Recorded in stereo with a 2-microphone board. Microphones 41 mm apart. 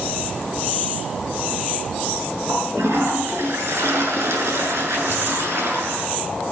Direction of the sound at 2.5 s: 85° right.